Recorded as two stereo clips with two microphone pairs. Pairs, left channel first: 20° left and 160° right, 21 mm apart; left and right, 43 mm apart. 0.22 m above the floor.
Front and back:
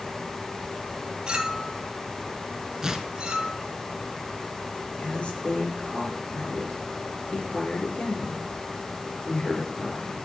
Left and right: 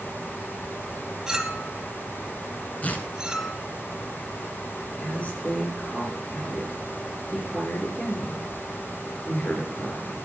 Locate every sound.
1.3 s a clink: 160° right, 1.2 m
2.8 s tearing paper: 140° left, 1.1 m
5.0 s a woman speaking: 35° left, 4 m